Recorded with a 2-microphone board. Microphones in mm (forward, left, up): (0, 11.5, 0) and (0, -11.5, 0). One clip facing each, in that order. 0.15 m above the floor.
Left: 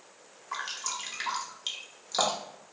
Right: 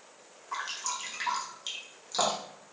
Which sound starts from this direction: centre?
Dripping, at 0.5 s.